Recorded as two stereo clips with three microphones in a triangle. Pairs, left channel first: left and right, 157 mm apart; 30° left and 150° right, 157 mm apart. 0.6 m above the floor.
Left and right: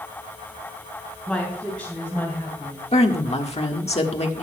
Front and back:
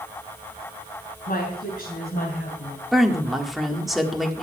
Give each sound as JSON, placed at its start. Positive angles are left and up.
{"t": 1.3, "sound": "a woman speaking", "azimuth_deg": 5, "distance_m": 3.5}
{"t": 2.9, "sound": "a woman speaking", "azimuth_deg": 120, "distance_m": 1.5}